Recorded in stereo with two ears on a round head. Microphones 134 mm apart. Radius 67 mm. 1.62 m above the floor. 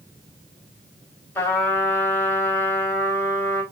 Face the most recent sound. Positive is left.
turn(degrees=15)  # may be behind; listen again after turning